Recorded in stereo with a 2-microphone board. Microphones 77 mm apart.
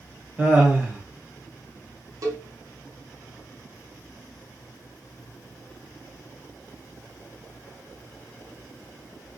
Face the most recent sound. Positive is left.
turn(degrees=-50)  # may be behind; listen again after turning